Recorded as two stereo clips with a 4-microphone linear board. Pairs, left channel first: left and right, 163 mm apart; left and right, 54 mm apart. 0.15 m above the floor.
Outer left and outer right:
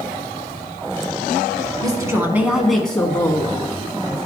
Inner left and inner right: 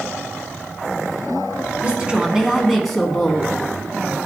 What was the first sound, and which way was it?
A woman speaking, 25° right (ahead or behind).